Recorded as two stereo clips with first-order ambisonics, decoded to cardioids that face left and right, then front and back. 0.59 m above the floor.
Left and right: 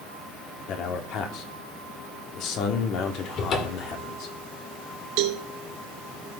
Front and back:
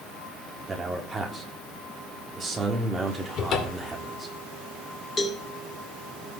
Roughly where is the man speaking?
Left.